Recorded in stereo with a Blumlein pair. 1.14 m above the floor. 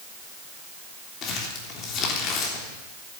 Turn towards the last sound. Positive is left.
turn(degrees=30)